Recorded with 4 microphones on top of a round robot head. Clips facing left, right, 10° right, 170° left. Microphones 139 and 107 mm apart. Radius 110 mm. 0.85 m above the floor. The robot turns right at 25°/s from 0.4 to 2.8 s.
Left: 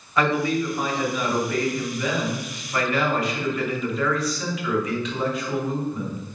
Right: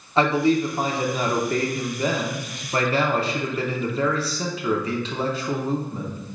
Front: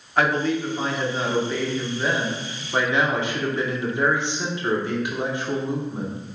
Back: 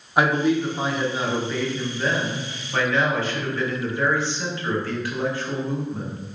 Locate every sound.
0.2 s a man speaking: 125° right, 0.9 m; by 6.2 s 65° right, 0.9 m